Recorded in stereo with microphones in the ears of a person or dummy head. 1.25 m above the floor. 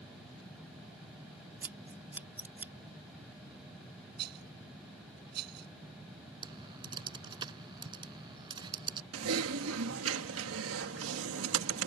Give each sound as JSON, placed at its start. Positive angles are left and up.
{"t": 1.6, "sound": "scissors", "side_deg": -10}
{"t": 4.2, "sound": "a rattle", "side_deg": -60}
{"t": 6.4, "sound": "typing on a keyboard", "side_deg": -30}
{"t": 9.1, "sound": "typing on a keyboard", "side_deg": -80}